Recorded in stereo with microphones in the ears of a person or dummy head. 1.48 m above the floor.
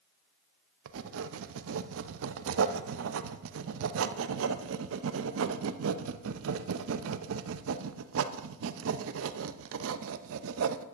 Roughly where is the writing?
Right.